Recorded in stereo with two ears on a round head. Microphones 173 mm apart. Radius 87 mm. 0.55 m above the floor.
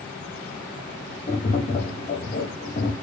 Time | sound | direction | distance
1.3 | tapping | 35° left (ahead or behind) | 0.9 m